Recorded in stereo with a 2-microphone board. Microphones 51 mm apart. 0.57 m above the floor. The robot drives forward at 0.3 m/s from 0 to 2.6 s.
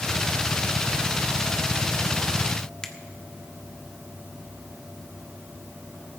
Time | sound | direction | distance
2.8 | a finger snap | 15° left (ahead or behind) | 1.2 m